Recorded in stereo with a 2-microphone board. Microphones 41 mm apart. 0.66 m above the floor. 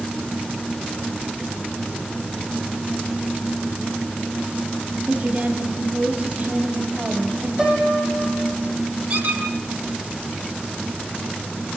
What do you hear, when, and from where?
5.1 s a woman speaking: 40° right (ahead or behind), 3.5 m
7.6 s a piano: 15° right (ahead or behind), 5.5 m
9.1 s a squeak: 50° right (ahead or behind), 7.5 m